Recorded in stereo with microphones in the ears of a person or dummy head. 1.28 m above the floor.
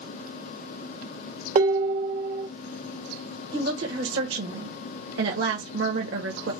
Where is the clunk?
I don't hear a clunk.